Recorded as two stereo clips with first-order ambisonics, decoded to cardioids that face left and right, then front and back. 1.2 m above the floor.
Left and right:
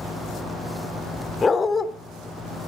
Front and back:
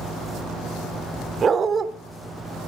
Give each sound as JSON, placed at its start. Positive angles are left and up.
{"t": 1.4, "sound": "a dog barking", "azimuth_deg": 145, "distance_m": 0.9}